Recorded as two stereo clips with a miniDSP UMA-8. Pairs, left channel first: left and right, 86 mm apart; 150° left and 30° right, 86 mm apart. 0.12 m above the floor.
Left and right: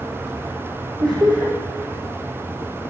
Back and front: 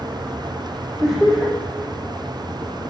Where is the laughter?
115° right, 5 m.